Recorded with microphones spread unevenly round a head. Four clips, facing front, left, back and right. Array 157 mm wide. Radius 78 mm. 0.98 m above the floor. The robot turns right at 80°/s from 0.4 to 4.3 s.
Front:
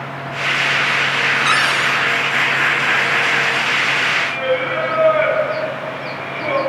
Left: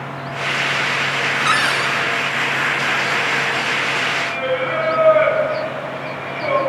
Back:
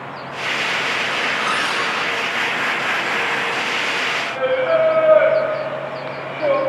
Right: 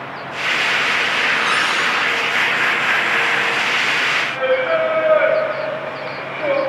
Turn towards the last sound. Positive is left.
turn(degrees=-165)